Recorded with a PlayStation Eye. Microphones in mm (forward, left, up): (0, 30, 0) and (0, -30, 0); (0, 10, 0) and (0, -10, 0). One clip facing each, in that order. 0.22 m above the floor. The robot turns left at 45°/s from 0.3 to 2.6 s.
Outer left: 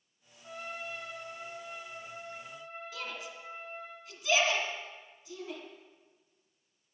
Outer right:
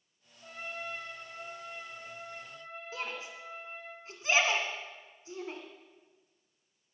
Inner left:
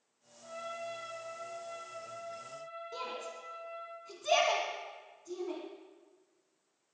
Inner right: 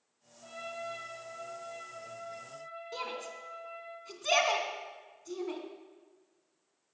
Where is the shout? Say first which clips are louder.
Outer right 4 dB, inner right 2 dB; 35° right (ahead or behind), 2.5 m.